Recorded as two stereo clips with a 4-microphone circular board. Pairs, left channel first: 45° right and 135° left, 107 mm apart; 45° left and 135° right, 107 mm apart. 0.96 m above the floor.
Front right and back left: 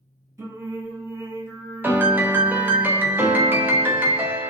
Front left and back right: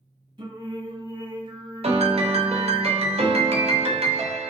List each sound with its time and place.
0.4 s singing: 165° right, 1.5 m
1.8 s a piano: 155° right, 0.6 m